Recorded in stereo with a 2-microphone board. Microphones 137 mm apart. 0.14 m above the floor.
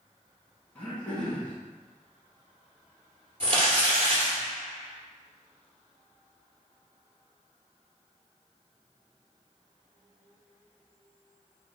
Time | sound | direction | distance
0.8 | throat clearing | 10° left (ahead or behind) | 1.0 m
3.4 | crumpling | 45° right (ahead or behind) | 2.0 m